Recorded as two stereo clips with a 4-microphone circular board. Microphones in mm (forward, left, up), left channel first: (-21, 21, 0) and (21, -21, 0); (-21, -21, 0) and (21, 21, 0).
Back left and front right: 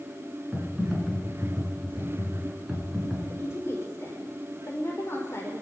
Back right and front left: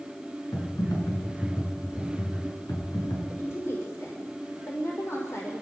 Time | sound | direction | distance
0.5 | typing on a keyboard | 125° right | 9.5 m
3.3 | a woman speaking | straight behind | 5.5 m